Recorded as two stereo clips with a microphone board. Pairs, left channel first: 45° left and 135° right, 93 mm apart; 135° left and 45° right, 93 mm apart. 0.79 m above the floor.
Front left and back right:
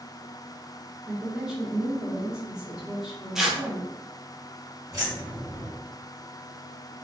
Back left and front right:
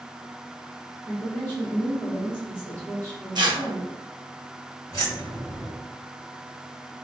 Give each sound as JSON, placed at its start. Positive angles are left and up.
{"t": 1.1, "sound": "a woman speaking", "azimuth_deg": 150, "distance_m": 1.0}
{"t": 3.4, "sound": "tearing paper", "azimuth_deg": -50, "distance_m": 0.6}
{"t": 4.9, "sound": "keys jangling", "azimuth_deg": 180, "distance_m": 1.3}